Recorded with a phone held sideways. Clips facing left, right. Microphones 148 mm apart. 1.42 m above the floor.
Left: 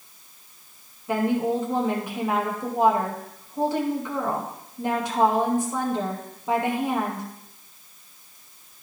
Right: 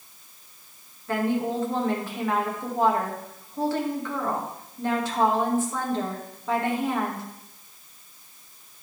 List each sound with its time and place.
1.1 s a woman speaking: 15° left (ahead or behind), 2.5 m